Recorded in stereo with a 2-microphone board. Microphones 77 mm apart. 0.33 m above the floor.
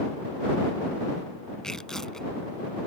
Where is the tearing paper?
5° left (ahead or behind).